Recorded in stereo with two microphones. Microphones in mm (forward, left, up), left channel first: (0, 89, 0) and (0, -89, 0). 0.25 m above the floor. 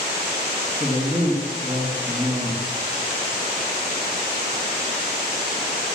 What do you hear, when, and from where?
0.8 s a man speaking: centre (ahead or behind), 4 m